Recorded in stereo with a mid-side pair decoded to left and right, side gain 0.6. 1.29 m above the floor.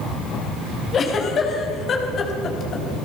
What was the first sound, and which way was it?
A giggle, 40° left.